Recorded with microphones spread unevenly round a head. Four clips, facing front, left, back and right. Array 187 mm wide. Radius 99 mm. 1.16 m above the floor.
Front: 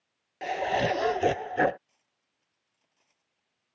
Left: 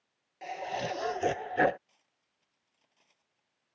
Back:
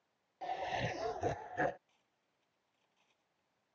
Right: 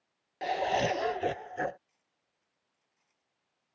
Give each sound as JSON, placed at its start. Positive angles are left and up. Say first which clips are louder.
{"t": 0.4, "sound": "laughter", "louder": "right 7 dB, front 11 dB", "azimuth_deg": -35}
{"t": 1.9, "sound": "cutlery clinking", "louder": "left 3 dB, even", "azimuth_deg": 65}